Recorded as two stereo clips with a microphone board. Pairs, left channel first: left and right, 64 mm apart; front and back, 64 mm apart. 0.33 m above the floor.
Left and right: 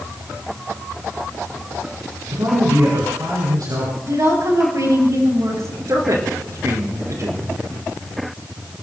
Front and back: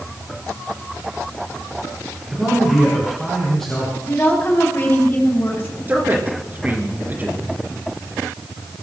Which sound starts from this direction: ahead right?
A woman speaking, at 4.0 s.